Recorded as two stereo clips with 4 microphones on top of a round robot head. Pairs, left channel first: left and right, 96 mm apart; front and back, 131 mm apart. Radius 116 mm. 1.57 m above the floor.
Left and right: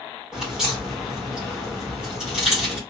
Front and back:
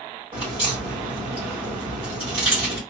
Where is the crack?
165° right, 1.2 m.